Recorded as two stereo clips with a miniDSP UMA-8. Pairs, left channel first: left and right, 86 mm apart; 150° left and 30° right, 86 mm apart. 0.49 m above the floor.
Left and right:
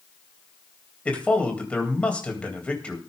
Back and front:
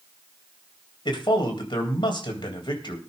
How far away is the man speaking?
About 3 m.